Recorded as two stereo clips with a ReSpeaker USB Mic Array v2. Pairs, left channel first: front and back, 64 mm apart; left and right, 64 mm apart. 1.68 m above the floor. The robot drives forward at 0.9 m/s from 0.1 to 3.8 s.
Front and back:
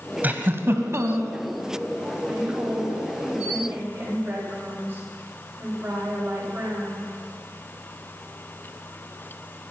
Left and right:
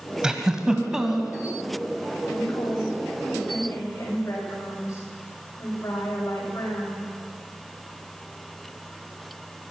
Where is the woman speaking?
125° left, 8.5 m; by 7.1 s 135° left, 9 m.